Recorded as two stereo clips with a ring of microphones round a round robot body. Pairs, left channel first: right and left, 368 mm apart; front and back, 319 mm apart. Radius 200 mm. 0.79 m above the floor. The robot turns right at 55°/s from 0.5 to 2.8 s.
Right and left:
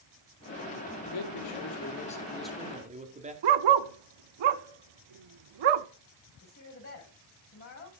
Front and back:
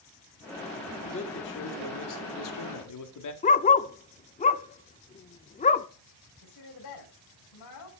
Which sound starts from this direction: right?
A man speaking, at 1.1 s.